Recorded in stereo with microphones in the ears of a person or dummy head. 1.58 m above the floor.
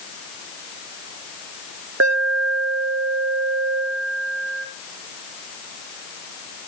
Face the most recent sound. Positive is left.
turn(degrees=-80)